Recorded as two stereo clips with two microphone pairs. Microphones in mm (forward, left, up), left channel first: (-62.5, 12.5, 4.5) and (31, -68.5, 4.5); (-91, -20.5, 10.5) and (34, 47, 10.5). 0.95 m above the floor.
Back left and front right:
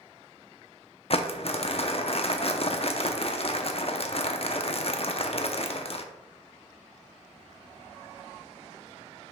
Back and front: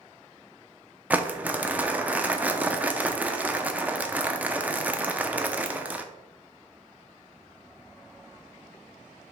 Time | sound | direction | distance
1.1 | crumpling | 110° left | 0.7 m